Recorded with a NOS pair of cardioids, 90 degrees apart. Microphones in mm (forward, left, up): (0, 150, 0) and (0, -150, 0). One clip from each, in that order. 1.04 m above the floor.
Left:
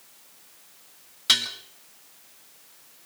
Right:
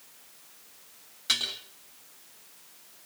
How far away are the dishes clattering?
About 8 m.